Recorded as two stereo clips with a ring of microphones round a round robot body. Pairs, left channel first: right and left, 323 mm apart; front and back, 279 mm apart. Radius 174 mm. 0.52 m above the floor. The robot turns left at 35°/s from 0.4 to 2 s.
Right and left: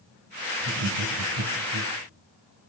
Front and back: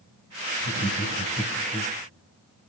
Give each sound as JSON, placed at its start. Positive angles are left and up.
{"t": 0.6, "sound": "laughter", "azimuth_deg": 140, "distance_m": 4.0}